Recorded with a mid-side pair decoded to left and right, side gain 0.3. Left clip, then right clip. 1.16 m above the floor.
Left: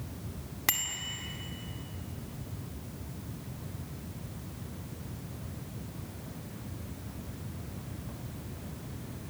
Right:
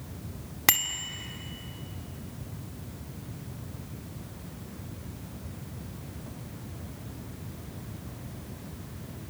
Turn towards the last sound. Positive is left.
turn(degrees=-60)